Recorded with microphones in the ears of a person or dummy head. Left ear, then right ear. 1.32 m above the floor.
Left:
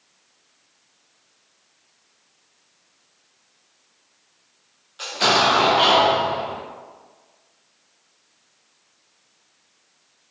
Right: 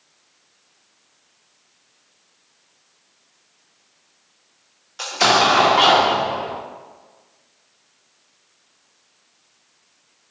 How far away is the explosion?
About 0.6 m.